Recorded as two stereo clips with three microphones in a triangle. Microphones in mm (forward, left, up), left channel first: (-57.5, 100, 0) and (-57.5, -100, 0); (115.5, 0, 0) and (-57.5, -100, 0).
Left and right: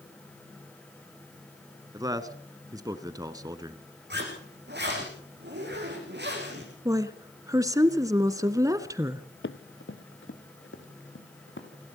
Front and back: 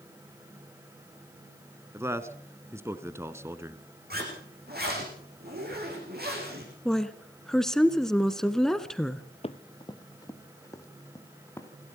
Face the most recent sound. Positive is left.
turn(degrees=110)